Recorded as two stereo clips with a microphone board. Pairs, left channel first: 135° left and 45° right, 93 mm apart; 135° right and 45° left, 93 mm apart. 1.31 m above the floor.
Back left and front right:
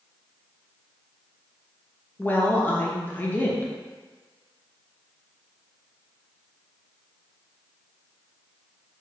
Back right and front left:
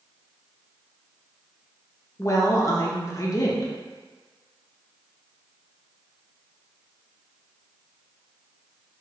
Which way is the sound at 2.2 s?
165° right.